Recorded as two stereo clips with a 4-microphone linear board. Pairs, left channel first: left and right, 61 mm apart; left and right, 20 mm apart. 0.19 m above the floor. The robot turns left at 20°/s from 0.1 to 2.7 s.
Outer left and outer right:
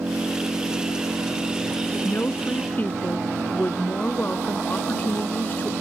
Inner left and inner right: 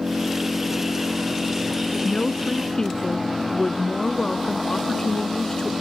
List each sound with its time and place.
0.0 s an engine running: 55° right; by 5.8 s 105° right
2.0 s a woman speaking: 40° left (ahead or behind); by 5.7 s 30° left (ahead or behind)